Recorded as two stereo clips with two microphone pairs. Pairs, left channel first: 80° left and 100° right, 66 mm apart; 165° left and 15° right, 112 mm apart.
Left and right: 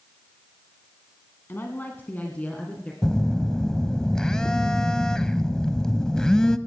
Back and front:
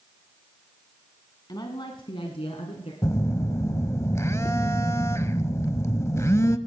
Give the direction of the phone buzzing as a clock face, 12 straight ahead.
7 o'clock.